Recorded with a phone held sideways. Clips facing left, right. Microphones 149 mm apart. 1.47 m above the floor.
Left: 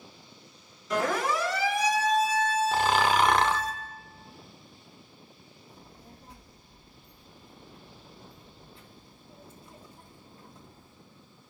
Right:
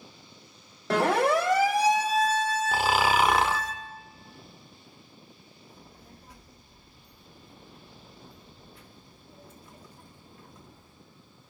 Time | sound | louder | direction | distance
0.9 | a siren | right 5 dB | 70° right (ahead or behind) | 2 m
2.7 | snoring | right 1 dB | 5° right (ahead or behind) | 0.7 m
5.7 | a child speaking | left 1 dB | 25° left (ahead or behind) | 2.5 m